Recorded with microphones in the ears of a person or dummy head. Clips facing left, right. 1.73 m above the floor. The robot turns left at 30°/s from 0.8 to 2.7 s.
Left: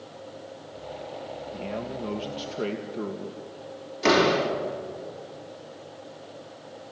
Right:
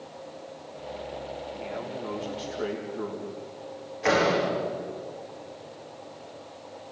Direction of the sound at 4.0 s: 50° left (ahead or behind).